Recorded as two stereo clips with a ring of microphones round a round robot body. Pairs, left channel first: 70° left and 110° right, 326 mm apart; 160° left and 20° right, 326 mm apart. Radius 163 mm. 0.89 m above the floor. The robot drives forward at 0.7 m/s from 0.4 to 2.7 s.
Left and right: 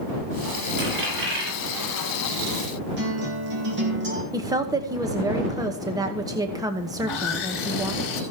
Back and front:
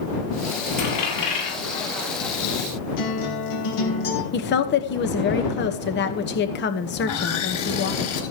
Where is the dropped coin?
165° right, 9 m; by 2.1 s 170° right, 10 m.